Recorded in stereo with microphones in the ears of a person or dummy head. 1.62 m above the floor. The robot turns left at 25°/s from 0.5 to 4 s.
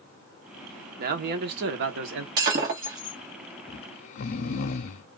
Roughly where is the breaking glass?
Right.